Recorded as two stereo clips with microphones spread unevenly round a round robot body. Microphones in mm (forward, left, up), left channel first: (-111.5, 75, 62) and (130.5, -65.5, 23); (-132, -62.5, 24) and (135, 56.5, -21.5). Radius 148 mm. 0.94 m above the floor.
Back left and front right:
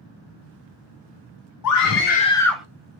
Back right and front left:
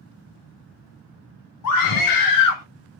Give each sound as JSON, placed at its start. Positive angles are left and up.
{"t": 1.6, "sound": "a scream", "azimuth_deg": 165, "distance_m": 0.6}